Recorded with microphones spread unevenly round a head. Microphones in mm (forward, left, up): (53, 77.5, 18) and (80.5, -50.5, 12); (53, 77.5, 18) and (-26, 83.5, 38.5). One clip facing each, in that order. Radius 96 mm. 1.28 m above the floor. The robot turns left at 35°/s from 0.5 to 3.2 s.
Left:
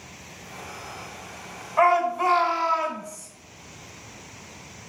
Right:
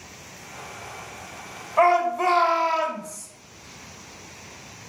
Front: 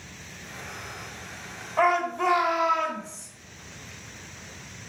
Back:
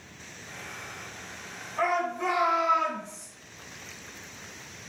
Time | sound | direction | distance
1.8 | a shout | 20° right | 1.4 m